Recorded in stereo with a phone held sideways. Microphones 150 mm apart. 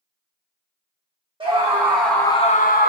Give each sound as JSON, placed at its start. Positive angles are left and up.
{"t": 1.4, "sound": "a scream", "side_deg": -30, "distance_m": 1.3}